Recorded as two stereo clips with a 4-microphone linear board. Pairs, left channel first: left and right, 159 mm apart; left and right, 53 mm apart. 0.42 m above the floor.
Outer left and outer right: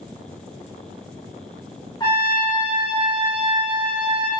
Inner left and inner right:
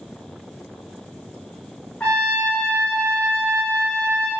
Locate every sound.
2.0 s a trumpet: 25° left (ahead or behind), 0.8 m